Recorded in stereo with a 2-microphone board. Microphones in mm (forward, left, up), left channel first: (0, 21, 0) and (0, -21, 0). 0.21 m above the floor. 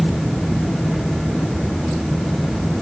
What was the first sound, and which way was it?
Only background noise.